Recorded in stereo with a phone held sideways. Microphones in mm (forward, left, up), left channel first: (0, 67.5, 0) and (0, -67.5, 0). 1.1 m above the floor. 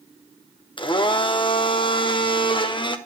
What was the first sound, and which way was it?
A blender, 40° left (ahead or behind).